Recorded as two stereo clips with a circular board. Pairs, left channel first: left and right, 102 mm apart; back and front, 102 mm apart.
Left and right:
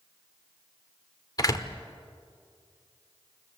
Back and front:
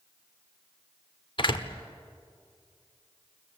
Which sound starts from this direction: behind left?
A door slam, at 1.4 s.